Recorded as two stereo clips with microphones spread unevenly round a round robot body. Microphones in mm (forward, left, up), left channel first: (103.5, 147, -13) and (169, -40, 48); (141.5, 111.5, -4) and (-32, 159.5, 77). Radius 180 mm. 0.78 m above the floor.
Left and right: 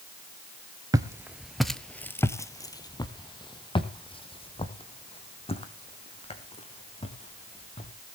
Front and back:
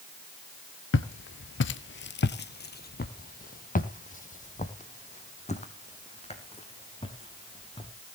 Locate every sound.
0.9 s footsteps: 40° right, 0.9 m; by 7.9 s 45° left, 4.5 m